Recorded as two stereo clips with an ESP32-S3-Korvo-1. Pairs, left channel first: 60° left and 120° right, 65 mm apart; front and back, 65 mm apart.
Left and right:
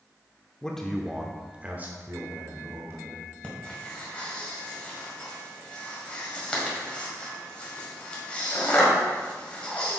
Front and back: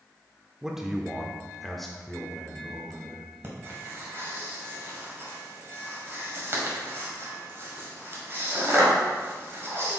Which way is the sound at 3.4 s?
130° left.